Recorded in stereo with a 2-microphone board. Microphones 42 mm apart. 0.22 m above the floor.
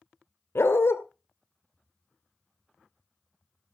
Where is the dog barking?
75° left (ahead or behind), 1.8 m.